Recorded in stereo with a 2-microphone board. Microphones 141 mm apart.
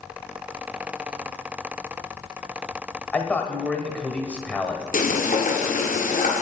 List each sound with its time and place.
3.1 s a man speaking: 10° left (ahead or behind), 1.3 m
4.9 s frying: 75° left (ahead or behind), 1.6 m